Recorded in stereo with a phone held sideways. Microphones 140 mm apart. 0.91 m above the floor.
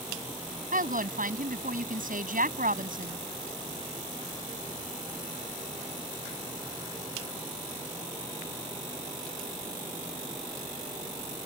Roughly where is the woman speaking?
Right.